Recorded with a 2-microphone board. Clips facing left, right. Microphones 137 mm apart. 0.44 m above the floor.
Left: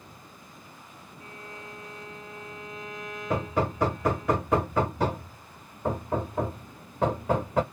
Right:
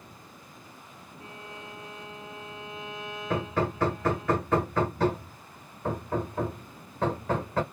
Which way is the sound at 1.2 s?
30° right (ahead or behind).